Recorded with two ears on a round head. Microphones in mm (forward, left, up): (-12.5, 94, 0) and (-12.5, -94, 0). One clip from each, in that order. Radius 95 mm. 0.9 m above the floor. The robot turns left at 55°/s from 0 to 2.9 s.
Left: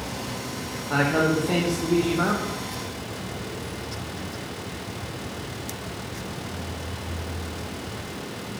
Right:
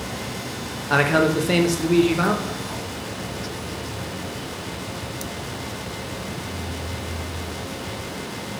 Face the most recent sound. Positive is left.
turn(degrees=175)